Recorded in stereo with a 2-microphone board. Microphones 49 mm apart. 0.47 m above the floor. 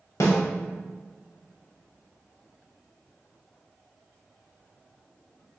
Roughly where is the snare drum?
Left.